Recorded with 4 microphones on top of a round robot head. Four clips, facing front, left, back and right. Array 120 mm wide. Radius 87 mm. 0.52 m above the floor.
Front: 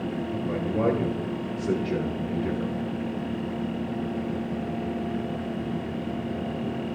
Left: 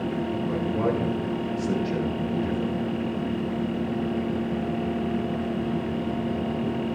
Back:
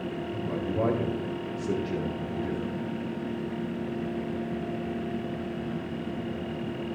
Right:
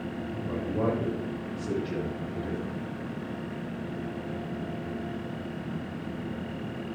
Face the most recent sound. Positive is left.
turn(degrees=15)